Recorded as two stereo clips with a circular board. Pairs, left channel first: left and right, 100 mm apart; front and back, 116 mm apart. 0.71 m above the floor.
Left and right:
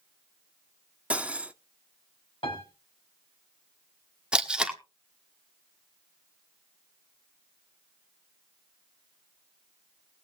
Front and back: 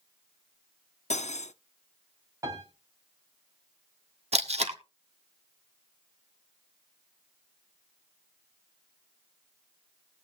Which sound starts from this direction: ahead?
Cutlery clinking, at 1.1 s.